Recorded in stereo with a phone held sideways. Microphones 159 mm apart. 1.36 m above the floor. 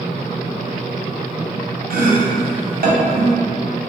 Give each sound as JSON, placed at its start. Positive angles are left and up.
{"t": 1.9, "sound": "chopping", "side_deg": -70, "distance_m": 0.7}